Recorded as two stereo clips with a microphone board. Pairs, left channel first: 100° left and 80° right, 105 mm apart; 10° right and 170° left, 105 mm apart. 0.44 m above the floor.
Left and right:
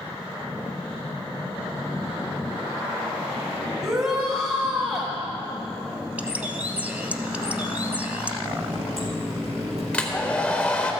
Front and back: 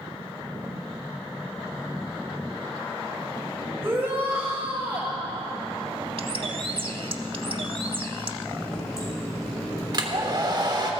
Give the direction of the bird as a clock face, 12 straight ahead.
5 o'clock.